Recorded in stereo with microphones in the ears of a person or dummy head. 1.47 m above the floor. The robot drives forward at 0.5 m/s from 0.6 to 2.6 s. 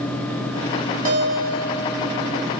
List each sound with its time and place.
1.1 s a guitar: 50° right (ahead or behind), 2.5 m; by 2.5 s 60° right (ahead or behind), 2 m